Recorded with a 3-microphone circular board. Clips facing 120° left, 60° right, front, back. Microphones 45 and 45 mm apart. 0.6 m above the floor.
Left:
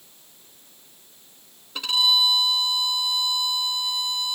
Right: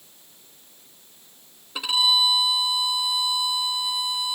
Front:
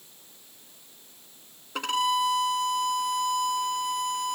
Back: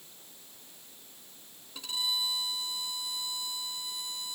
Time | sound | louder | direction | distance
1.8 | a violin | even, front 10 dB | 20° left | ?